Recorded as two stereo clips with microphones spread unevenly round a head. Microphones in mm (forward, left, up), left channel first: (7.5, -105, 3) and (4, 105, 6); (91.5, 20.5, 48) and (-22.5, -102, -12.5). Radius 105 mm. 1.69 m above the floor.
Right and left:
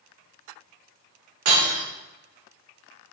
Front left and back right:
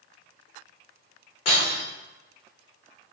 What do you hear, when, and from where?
1.4 s breaking glass: 105° left, 3 m